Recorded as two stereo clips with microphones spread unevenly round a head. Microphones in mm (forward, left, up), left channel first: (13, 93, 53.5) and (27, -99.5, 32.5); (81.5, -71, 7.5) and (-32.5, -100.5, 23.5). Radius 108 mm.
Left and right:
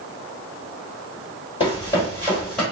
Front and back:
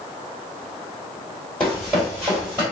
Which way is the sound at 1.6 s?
100° left.